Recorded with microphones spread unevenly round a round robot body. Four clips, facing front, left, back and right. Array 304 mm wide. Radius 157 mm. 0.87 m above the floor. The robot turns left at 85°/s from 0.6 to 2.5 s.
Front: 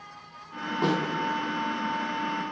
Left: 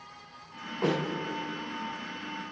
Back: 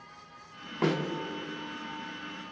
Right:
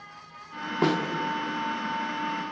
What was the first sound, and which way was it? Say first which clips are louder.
A snare drum: right 4 dB, front 2 dB; 100° right.